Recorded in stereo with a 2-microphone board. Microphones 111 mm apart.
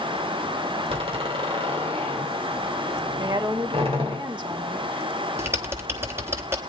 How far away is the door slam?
About 2.5 m.